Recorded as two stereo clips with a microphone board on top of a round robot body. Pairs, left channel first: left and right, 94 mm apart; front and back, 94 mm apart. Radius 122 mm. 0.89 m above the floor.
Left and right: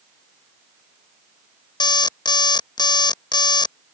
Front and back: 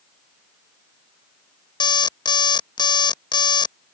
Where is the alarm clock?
45° left.